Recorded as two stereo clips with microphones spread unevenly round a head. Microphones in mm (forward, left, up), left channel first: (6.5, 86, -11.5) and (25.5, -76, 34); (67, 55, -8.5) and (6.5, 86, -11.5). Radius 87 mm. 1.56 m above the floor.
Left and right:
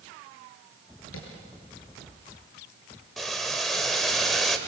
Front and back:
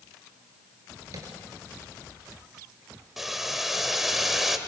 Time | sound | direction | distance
1.1 | tapping | 115° left | 6 m
3.2 | boiling | 120° right | 1.3 m